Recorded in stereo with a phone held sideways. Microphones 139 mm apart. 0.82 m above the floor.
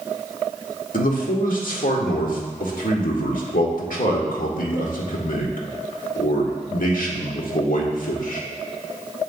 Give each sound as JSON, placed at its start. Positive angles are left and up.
{"t": 0.9, "sound": "a man speaking", "side_deg": 80, "distance_m": 1.6}